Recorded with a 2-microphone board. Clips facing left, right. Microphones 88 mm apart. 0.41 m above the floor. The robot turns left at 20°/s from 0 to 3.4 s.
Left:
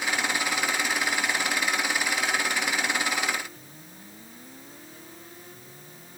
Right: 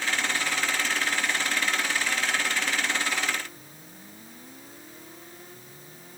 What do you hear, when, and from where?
Only background noise.